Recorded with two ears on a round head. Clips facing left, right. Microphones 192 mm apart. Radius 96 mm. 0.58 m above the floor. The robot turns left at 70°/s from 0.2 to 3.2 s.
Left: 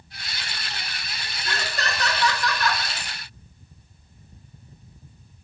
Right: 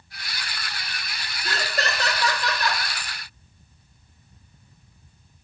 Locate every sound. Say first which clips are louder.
1.4 s laughter: right 2 dB; 25° right (ahead or behind), 0.6 m; by 2.8 s 10° right (ahead or behind), 0.6 m